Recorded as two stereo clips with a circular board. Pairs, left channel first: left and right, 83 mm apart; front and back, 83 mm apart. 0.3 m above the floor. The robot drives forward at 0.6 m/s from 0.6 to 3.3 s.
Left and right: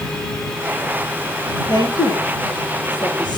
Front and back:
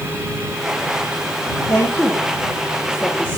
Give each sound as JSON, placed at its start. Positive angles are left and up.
{"t": 1.7, "sound": "a woman speaking", "azimuth_deg": 60, "distance_m": 9.0}